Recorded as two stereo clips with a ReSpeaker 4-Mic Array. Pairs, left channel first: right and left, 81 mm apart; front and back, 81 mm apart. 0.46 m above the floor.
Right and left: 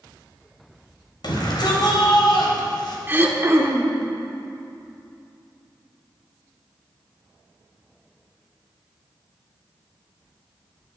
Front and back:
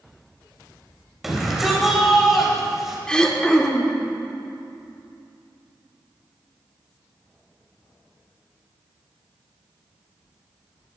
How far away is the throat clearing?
About 0.9 m.